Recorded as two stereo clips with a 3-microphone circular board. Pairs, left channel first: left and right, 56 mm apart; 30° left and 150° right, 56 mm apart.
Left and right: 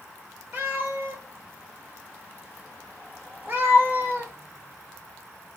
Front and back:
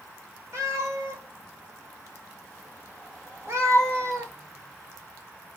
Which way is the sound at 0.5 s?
130° right.